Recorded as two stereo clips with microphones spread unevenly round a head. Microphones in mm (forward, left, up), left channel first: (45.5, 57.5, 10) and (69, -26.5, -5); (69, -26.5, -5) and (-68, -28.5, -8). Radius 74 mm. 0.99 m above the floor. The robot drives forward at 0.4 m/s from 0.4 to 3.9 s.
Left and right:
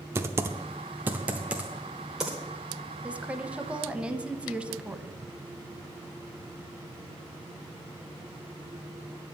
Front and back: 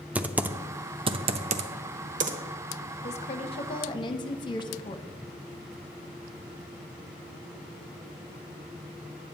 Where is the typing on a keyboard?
115° right, 0.5 m; by 2.4 s 170° right, 1.0 m.